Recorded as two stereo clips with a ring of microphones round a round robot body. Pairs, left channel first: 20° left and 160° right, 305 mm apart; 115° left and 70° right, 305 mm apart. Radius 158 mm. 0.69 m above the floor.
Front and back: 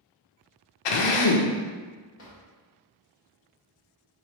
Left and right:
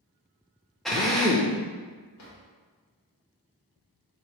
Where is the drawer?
70° left, 1.2 m.